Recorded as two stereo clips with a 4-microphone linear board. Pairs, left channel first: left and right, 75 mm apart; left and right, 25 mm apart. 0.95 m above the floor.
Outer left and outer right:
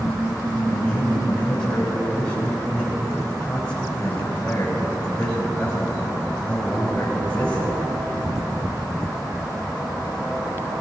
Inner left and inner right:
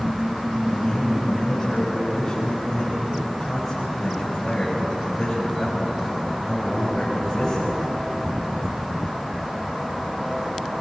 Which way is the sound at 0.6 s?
10° left (ahead or behind).